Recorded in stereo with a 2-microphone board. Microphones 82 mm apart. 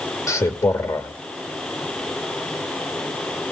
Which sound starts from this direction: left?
A man speaking, at 0.3 s.